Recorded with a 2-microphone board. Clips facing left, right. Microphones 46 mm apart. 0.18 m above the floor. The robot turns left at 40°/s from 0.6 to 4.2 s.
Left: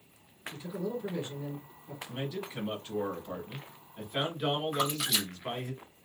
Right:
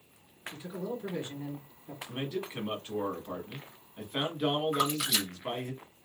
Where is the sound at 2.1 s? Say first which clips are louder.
Right 2 dB; 80° right, 1.6 m; by 5.7 s 165° right, 1.6 m.